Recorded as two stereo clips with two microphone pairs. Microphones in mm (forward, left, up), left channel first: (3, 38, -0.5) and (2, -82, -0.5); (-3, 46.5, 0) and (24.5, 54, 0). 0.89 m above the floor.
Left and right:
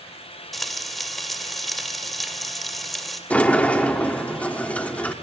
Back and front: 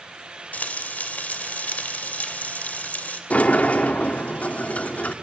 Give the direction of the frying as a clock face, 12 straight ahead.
6 o'clock.